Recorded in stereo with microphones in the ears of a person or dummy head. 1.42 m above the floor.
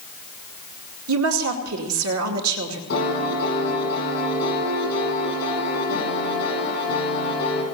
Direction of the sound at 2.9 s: 60° left (ahead or behind).